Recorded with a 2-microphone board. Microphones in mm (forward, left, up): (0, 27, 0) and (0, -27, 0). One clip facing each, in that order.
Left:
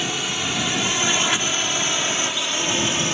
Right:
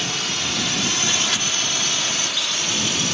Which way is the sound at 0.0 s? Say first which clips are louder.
Left 1 dB; 15° left (ahead or behind).